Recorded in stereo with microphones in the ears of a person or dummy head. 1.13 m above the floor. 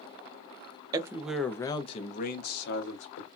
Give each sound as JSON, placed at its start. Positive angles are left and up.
{"t": 0.9, "sound": "a man speaking", "side_deg": -20, "distance_m": 0.6}